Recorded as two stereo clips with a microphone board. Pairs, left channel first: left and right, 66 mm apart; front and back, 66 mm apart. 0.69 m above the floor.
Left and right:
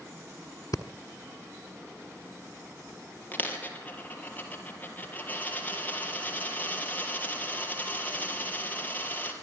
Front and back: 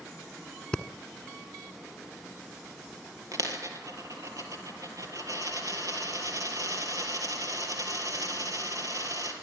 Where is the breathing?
80° left, 1.3 m.